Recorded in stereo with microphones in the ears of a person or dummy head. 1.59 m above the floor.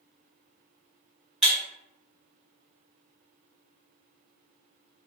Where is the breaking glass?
Centre (ahead or behind), 1.2 m.